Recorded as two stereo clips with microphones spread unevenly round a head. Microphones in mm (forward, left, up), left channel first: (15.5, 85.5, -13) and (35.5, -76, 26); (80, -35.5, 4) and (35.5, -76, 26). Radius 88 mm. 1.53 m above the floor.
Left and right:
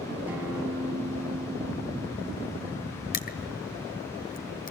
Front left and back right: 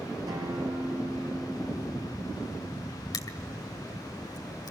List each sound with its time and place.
0.3 s a guitar: 160° right, 6.5 m
3.1 s crushing: 65° left, 1.7 m